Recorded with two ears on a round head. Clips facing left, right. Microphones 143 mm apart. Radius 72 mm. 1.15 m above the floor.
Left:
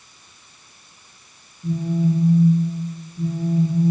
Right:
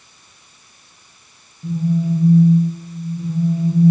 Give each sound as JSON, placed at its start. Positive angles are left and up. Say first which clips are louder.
{"t": 1.6, "sound": "a phone buzzing", "louder": "right 1 dB", "side_deg": -35, "distance_m": 6.5}